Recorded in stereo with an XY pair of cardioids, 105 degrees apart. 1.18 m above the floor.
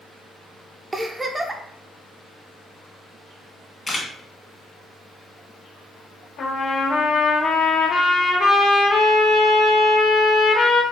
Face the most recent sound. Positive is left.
turn(degrees=50)